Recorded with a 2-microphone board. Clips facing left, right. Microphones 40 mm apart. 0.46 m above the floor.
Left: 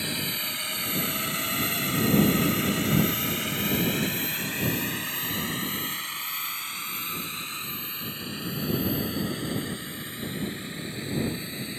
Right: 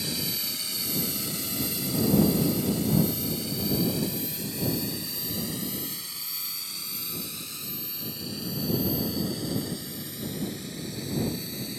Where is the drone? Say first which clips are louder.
Left 2 dB; 35° left (ahead or behind); by 11.8 s 30° left (ahead or behind).